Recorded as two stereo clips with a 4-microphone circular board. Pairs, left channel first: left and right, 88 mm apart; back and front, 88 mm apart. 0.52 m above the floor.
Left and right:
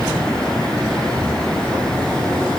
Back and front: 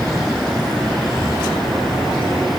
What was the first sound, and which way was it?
Only background noise.